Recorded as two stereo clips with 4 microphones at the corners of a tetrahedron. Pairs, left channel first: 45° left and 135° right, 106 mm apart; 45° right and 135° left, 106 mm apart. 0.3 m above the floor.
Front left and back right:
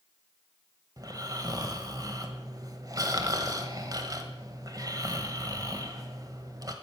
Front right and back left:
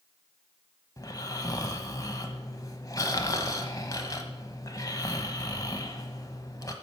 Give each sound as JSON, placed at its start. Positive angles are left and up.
{"t": 1.0, "sound": "snoring", "azimuth_deg": -90, "distance_m": 1.0}